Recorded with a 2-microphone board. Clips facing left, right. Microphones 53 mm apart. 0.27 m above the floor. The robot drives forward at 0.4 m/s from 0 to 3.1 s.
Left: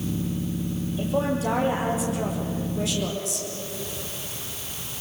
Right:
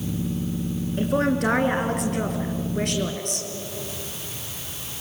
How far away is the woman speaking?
About 3 m.